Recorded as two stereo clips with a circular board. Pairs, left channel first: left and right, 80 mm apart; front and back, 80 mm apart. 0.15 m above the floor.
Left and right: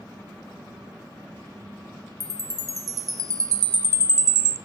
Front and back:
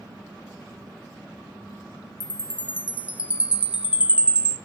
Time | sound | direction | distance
2.2 | a chime | 110° right | 0.5 m